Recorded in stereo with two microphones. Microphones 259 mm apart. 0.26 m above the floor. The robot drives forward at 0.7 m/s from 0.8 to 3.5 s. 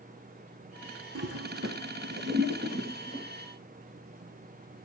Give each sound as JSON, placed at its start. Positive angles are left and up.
{"t": 1.1, "sound": "a toilet flushing", "side_deg": -65, "distance_m": 1.4}